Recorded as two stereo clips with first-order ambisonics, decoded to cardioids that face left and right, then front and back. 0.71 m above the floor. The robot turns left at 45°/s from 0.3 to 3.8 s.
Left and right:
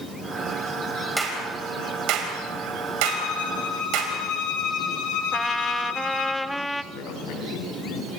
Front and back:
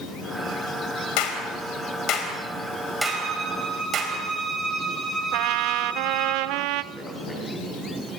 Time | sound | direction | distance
1.2 | a clap | 5° right | 4 m
3.0 | a violin | 130° left | 7.5 m
5.3 | a trumpet | 175° left | 0.5 m
6.9 | a man speaking | 85° left | 7.5 m